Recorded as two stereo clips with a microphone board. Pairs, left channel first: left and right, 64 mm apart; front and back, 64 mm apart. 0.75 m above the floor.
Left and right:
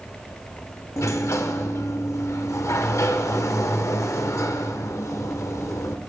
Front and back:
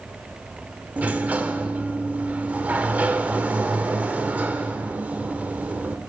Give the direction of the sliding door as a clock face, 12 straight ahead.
8 o'clock.